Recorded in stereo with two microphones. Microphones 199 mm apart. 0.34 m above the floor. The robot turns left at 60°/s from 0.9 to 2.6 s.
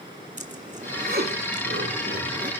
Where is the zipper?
40° right (ahead or behind), 2.5 m.